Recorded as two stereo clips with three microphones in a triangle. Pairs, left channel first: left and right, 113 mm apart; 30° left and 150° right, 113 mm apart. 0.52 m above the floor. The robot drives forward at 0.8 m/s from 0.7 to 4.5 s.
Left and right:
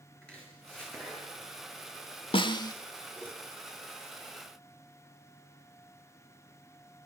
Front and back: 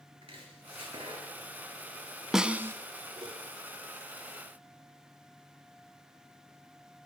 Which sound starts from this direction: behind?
Chopping, at 0.2 s.